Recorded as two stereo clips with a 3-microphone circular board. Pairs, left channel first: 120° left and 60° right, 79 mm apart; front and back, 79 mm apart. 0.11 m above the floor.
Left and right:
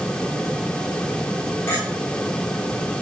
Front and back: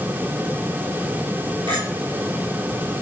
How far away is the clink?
About 3.5 m.